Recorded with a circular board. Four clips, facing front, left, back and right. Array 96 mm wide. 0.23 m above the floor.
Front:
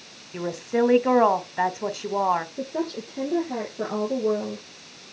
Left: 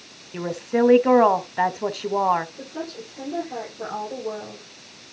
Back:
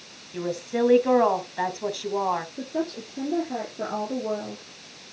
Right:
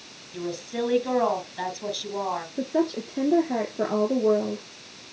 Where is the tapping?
I don't hear tapping.